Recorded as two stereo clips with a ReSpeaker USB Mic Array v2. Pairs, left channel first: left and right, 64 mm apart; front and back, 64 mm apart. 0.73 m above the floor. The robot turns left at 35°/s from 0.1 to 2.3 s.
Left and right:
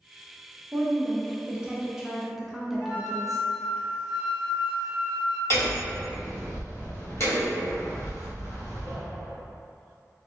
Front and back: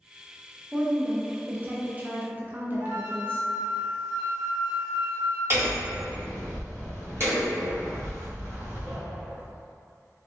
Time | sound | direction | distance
0.7 | a woman speaking | 115° right | 0.6 m
2.8 | a flute | 165° right | 0.9 m
5.5 | hammering | 135° left | 2.0 m